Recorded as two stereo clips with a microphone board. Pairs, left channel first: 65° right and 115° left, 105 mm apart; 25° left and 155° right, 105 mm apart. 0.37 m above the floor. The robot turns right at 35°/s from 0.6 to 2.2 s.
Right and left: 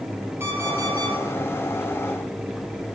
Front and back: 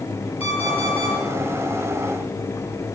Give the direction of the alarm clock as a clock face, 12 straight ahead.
10 o'clock.